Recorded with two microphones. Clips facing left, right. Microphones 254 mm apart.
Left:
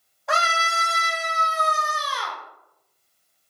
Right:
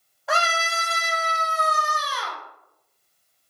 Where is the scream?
Centre (ahead or behind), 0.5 m.